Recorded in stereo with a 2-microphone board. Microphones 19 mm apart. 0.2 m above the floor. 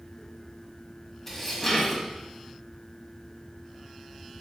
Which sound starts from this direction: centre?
Dishes clattering, at 1.3 s.